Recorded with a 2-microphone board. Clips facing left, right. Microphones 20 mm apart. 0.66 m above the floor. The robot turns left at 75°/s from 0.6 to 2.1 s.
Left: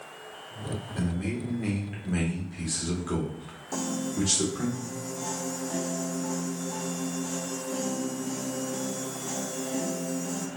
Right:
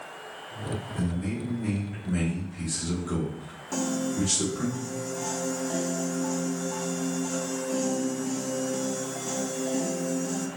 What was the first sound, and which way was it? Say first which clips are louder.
A man speaking: left 1 dB; 120° left.